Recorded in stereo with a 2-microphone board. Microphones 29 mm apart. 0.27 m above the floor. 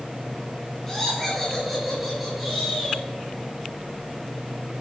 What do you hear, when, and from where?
0.9 s laughter: 15° left (ahead or behind), 3.5 m; by 3.0 s 10° right (ahead or behind), 4.5 m